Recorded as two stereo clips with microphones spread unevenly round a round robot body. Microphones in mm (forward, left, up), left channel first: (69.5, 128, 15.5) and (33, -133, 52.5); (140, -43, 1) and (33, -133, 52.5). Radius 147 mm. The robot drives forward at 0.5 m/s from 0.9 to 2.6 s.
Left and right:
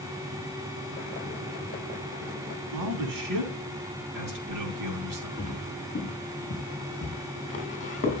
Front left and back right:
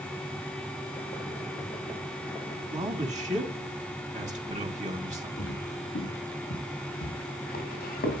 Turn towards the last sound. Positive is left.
turn(degrees=15)